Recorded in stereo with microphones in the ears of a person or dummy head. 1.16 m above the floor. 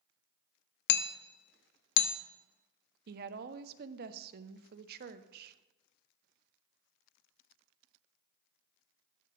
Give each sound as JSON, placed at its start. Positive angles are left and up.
{"t": 0.9, "sound": "hammering", "side_deg": 50, "distance_m": 0.7}
{"t": 3.1, "sound": "a woman speaking", "side_deg": -60, "distance_m": 0.7}